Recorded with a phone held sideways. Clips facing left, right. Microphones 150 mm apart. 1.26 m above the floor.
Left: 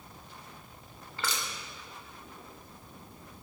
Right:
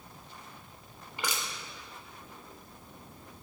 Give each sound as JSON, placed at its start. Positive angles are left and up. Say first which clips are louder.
{"t": 1.2, "sound": "crushing", "louder": "even", "side_deg": -15, "distance_m": 3.0}